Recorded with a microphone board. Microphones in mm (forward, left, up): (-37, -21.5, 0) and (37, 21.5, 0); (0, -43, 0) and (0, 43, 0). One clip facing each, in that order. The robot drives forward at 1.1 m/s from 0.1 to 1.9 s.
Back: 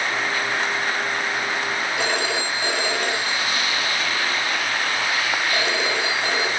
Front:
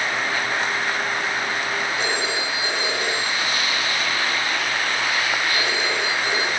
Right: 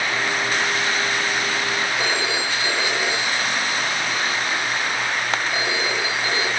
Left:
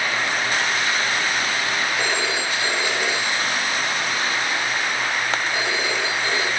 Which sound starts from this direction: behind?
A phone ringing, at 2.0 s.